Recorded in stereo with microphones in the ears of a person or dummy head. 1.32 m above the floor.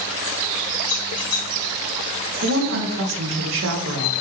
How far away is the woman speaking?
About 0.7 m.